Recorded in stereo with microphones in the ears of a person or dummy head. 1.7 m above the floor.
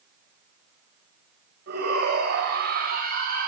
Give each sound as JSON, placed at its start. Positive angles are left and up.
{"t": 1.7, "sound": "a shout", "side_deg": -65, "distance_m": 8.0}